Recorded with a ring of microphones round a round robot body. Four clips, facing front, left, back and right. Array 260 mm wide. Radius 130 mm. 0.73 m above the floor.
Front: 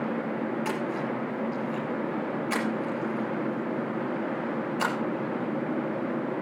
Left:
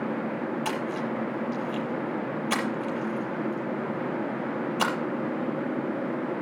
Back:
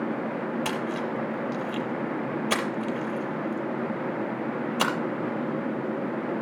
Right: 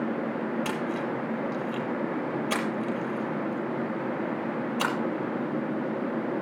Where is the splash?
Straight behind, 6.5 m.